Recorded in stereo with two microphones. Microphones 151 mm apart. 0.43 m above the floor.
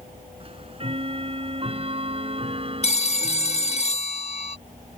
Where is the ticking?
40° right (ahead or behind).